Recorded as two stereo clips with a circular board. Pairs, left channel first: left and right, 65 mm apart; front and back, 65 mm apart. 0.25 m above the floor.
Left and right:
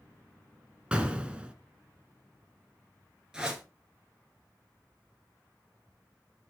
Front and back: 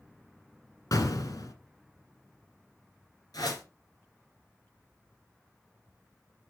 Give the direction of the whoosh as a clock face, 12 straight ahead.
12 o'clock.